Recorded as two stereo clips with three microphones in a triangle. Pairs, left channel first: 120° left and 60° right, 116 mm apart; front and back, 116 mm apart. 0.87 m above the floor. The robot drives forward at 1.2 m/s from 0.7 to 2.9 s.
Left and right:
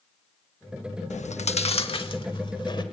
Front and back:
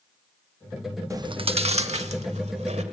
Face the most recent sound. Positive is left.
turn(degrees=170)